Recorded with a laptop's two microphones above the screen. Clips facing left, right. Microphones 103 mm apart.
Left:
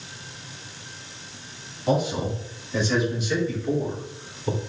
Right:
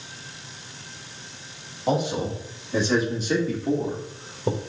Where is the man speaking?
25° right (ahead or behind), 3 m; by 4.6 s 70° right (ahead or behind), 1.8 m.